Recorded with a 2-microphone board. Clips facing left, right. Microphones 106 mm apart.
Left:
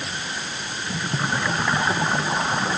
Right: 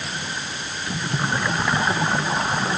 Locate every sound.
Only background noise.